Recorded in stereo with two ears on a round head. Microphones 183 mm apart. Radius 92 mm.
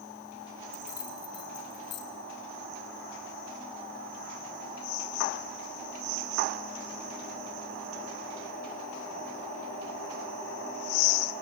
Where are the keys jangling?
40° left (ahead or behind), 4 m; by 2.0 s 60° left (ahead or behind), 5 m.